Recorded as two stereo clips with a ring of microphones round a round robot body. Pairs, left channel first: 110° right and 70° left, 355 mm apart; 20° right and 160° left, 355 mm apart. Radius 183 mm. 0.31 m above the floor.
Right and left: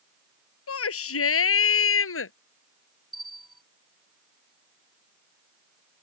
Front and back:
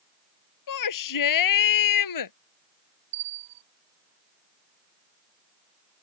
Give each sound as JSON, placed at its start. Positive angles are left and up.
{"t": 0.7, "sound": "a shout", "azimuth_deg": -60}
{"t": 3.1, "sound": "a bell", "azimuth_deg": 160}